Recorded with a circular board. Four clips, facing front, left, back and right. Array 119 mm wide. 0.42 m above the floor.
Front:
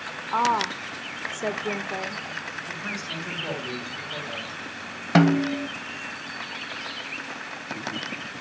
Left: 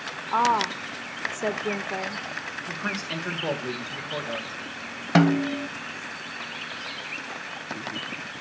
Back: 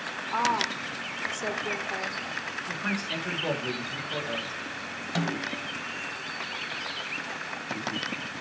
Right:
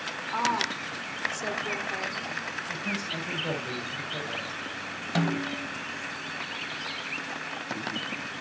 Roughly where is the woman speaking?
Ahead left.